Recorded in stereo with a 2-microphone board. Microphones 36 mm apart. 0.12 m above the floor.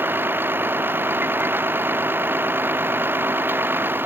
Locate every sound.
0.0 s a vehicle: 70° right (ahead or behind)